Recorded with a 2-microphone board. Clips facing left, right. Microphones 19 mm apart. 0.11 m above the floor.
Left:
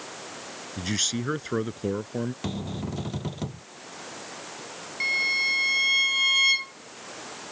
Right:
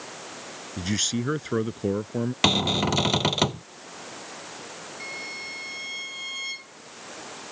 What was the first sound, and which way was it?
A man speaking, 5° left (ahead or behind).